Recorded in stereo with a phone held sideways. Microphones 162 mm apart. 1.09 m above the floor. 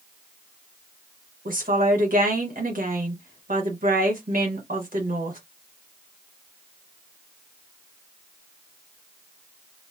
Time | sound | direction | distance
1.4 | a woman speaking | 60° right (ahead or behind) | 1.6 m